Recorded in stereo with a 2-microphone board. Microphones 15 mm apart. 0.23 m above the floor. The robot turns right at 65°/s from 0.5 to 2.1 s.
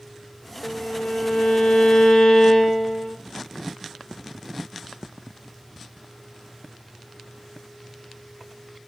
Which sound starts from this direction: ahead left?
A violin, at 0.6 s.